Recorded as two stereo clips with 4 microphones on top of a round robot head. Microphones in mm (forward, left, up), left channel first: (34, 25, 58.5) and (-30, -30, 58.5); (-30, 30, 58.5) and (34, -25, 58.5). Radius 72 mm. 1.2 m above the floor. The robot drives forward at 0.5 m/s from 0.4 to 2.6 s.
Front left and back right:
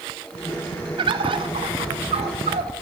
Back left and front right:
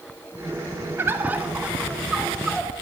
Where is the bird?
105° right, 1.4 m; by 2.7 s 130° right, 1.8 m.